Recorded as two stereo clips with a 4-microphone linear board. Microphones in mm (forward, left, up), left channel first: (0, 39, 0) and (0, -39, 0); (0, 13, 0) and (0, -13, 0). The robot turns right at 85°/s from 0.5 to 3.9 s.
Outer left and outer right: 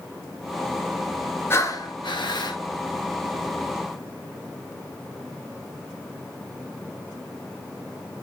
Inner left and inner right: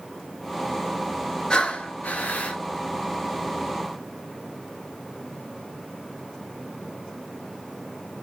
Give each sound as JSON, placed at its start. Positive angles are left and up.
{"t": 1.5, "sound": "breathing", "azimuth_deg": 35, "distance_m": 1.0}